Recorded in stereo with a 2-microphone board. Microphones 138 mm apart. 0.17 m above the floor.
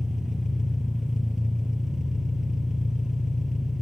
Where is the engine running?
5° right (ahead or behind), 1.1 m.